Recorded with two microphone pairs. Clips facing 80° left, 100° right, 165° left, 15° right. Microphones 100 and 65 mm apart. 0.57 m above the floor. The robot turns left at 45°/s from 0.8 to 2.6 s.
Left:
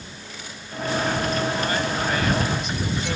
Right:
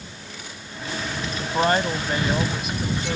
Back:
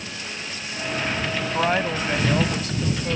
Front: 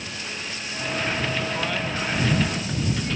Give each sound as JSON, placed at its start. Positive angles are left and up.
{"t": 1.4, "sound": "a woman speaking", "azimuth_deg": -130}